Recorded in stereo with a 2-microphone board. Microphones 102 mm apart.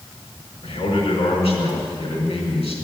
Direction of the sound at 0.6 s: 75° left (ahead or behind).